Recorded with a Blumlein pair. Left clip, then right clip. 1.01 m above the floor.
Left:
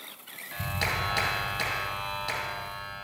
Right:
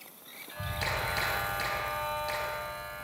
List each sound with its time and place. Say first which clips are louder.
0.5 s a clap: left 3 dB; 25° left, 4 m